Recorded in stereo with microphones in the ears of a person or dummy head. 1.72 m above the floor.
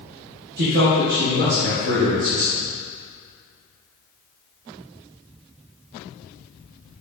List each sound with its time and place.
0.6 s a man speaking: 50° right (ahead or behind), 1.3 m; by 2.6 s 65° right (ahead or behind), 3.5 m